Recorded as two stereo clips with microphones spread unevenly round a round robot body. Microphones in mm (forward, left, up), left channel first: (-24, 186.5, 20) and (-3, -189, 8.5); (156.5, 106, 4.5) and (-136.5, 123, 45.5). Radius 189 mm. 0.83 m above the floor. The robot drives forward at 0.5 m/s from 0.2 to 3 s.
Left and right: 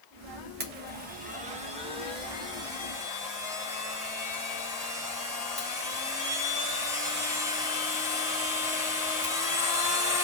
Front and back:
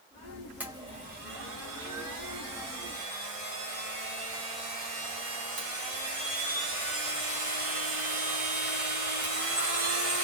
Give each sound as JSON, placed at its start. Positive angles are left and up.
{"t": 0.6, "sound": "a blender", "azimuth_deg": -85, "distance_m": 0.6}